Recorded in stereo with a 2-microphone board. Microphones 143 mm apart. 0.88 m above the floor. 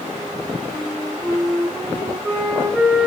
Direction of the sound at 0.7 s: 15° left (ahead or behind).